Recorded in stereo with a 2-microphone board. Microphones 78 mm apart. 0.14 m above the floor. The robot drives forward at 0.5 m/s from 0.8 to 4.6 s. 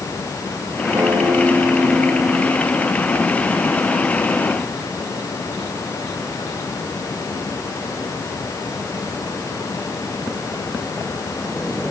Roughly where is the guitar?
Right.